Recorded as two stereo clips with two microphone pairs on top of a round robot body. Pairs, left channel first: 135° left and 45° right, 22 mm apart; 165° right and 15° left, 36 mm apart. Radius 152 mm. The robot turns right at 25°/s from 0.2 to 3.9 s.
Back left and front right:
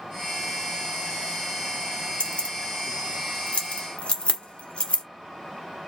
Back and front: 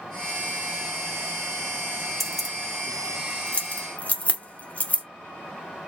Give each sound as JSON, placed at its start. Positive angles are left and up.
{"t": 2.2, "sound": "keys jangling", "azimuth_deg": 110, "distance_m": 1.0}